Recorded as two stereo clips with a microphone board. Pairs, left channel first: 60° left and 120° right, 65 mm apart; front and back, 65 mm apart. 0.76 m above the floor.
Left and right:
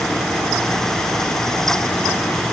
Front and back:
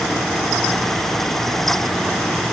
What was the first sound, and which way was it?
Only background noise.